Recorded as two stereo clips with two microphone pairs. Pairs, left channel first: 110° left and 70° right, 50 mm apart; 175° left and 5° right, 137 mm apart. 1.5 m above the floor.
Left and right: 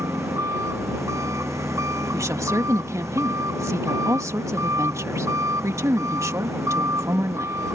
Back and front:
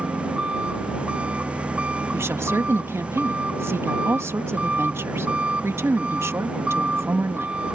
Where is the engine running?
85° right.